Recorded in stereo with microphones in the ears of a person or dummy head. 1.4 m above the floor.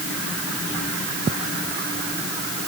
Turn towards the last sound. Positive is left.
No sound to turn to.